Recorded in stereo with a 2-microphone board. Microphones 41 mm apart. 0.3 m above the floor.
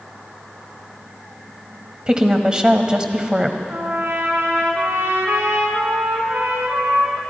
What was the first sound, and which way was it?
A woman speaking, 20° right (ahead or behind).